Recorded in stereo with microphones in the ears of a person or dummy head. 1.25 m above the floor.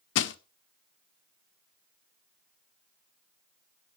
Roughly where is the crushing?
Left.